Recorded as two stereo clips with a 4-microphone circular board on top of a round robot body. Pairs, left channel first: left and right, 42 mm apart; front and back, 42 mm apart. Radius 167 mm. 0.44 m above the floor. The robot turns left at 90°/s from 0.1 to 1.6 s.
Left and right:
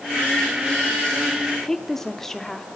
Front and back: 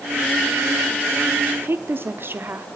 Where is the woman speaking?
170° left, 1.2 m.